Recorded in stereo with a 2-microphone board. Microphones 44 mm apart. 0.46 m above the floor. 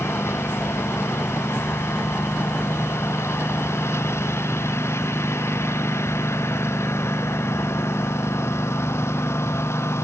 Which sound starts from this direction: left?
A lawn mower, at 0.0 s.